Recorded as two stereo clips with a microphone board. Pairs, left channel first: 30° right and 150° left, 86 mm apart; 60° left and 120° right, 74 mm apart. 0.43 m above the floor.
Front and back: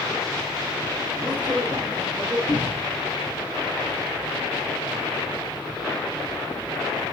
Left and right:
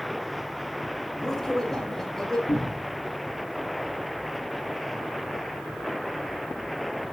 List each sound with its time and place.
1.1 s a man speaking: 145° left, 2.5 m
2.5 s a cupboard door: 55° left, 3.5 m